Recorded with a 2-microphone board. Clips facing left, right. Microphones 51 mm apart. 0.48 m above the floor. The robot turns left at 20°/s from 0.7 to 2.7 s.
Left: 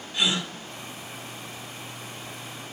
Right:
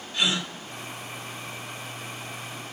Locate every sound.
0.1 s a gasp: 20° left (ahead or behind), 1.5 m